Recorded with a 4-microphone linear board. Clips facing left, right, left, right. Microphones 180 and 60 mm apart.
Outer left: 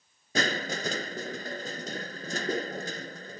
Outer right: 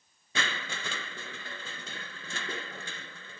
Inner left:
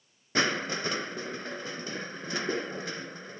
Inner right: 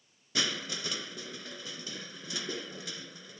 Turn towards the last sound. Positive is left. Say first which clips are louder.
# outer left 8 dB, inner left 7 dB
turn(degrees=40)  # may be behind; listen again after turning